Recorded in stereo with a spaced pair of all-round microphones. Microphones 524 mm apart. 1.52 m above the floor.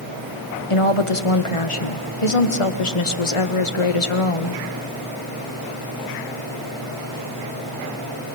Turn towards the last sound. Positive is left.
turn(degrees=70)  # may be behind; listen again after turning